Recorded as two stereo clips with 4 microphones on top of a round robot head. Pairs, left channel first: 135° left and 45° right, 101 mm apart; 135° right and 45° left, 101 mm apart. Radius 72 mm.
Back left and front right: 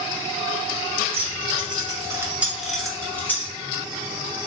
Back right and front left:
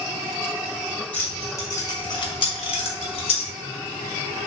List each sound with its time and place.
1.1 s keys jangling: 60° right, 1.0 m; by 3.5 s 160° right, 1.0 m